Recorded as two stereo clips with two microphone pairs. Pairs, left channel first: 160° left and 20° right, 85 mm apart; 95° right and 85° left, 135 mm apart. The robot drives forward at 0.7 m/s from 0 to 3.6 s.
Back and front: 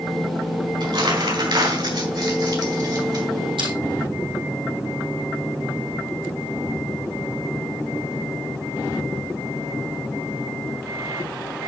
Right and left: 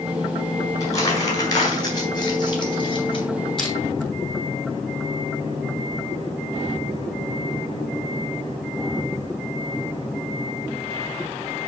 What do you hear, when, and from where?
0.8 s crumpling: 30° right, 4 m; by 3.2 s 50° right, 3 m
3.6 s crushing: 10° right, 3.5 m